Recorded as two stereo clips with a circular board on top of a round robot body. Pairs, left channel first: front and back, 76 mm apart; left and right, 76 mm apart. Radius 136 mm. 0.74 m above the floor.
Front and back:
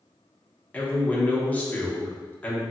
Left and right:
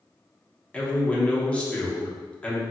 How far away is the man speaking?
About 1.0 m.